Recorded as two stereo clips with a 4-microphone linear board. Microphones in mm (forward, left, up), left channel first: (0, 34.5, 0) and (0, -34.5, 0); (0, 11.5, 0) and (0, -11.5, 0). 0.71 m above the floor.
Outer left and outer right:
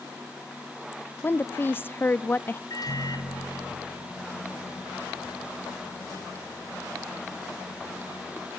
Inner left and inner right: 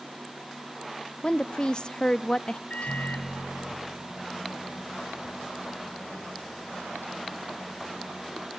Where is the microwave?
60° left (ahead or behind), 2.5 m.